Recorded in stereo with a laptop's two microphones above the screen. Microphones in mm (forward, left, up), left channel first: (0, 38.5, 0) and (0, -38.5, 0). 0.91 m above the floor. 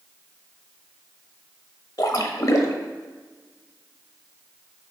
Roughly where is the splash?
Left.